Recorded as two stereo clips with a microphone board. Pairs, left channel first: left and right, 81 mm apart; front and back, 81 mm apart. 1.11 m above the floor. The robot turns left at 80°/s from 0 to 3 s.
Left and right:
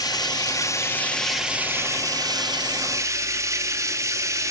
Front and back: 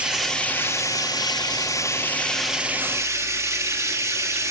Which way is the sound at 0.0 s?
105° left.